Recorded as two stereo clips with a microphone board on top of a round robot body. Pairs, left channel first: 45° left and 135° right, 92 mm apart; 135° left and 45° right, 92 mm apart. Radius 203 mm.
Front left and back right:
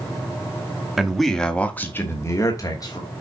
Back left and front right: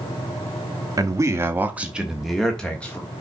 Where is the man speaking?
50° right, 1.7 m; by 3.1 s 70° left, 2.0 m.